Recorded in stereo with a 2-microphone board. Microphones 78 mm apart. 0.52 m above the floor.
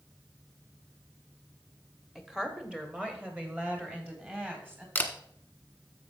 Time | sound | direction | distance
2.1 | a woman speaking | 5° right (ahead or behind) | 1.4 m
5.0 | a camera shutter | 20° left (ahead or behind) | 1.4 m